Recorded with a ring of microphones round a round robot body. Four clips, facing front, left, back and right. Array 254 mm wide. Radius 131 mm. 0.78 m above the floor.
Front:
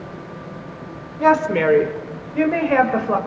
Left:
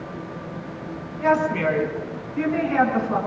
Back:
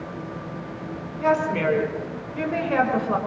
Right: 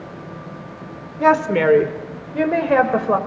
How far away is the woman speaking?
About 3.5 m.